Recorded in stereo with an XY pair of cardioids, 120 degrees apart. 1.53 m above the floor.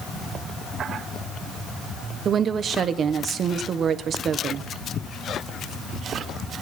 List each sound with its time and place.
2.2 s a woman speaking: 45° right, 1.0 m